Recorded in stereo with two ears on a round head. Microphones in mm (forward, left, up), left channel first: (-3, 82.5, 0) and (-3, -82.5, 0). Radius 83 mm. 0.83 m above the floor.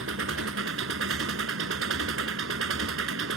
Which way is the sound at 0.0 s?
80° right.